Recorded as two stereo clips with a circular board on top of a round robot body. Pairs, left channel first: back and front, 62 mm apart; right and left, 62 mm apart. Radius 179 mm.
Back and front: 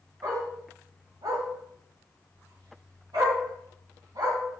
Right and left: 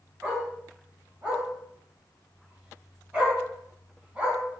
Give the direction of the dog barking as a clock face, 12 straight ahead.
11 o'clock.